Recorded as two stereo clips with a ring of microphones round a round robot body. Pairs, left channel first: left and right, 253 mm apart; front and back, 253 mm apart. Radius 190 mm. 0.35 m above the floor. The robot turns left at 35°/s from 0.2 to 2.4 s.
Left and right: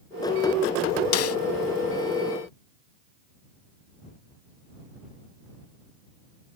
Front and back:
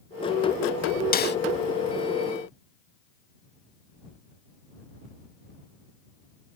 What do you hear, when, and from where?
1.1 s a snare drum: 60° left; by 1.4 s 50° left